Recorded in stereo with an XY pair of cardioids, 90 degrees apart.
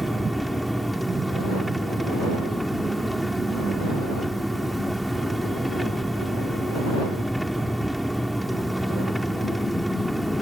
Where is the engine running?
5° right.